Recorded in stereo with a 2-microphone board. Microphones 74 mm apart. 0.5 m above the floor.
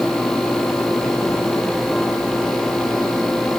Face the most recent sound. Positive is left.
No sound to turn to.